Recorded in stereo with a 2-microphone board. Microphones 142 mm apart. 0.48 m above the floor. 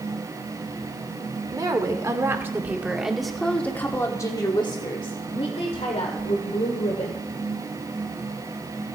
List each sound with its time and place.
1.5 s a woman speaking: 30° right (ahead or behind), 1.7 m; by 7.3 s 55° left (ahead or behind), 2.5 m